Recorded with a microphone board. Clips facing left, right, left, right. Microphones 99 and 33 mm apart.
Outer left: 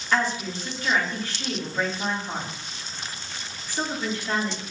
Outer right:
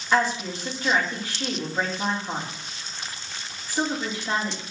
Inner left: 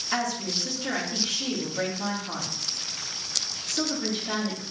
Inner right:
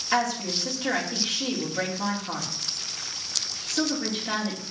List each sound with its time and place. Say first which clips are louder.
0.1 s a woman speaking: outer right 2 dB, inner right 3 dB; 15° right (ahead or behind), 2 m